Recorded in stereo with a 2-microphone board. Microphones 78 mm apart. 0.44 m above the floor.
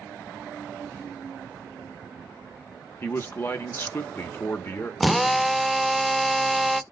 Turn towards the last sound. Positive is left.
turn(degrees=0)  # may be behind; listen again after turning